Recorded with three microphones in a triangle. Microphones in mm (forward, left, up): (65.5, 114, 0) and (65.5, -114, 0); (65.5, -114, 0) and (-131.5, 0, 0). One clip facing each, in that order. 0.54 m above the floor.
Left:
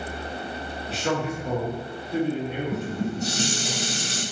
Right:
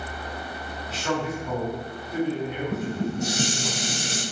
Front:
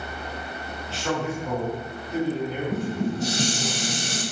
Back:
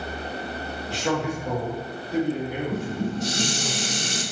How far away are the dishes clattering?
About 1.6 m.